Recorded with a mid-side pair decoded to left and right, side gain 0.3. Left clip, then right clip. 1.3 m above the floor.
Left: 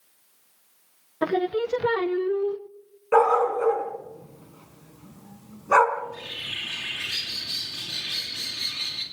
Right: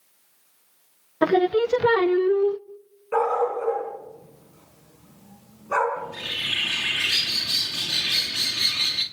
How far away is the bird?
About 3 m.